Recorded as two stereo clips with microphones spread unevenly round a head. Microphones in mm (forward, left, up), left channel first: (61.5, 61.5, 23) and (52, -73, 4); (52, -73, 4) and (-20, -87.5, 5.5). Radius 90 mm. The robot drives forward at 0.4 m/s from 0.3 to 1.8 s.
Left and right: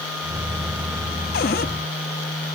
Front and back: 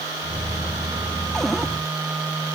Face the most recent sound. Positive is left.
turn(degrees=110)